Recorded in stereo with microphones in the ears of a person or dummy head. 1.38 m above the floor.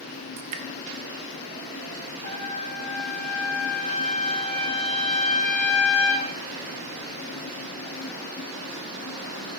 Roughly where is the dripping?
Right.